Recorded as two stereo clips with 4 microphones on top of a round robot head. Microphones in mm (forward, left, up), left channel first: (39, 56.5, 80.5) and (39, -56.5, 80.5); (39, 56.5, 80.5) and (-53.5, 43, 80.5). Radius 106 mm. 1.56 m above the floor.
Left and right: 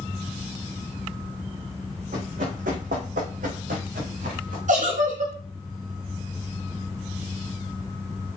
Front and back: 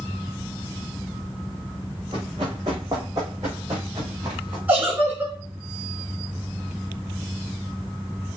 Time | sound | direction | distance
2.1 | running footsteps | 115° right | 3.5 m
4.7 | a giggle | 100° right | 4 m